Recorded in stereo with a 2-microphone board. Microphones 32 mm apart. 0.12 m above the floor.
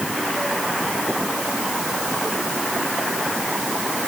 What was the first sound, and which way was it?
Only background noise.